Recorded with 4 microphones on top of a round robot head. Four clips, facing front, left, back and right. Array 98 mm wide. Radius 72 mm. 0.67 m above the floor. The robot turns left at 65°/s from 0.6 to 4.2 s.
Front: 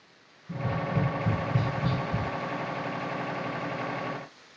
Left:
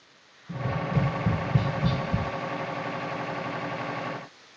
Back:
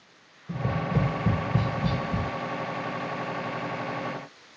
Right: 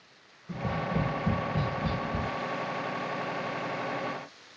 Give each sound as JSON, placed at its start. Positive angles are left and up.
{"t": 0.5, "sound": "tapping", "azimuth_deg": -165, "distance_m": 2.5}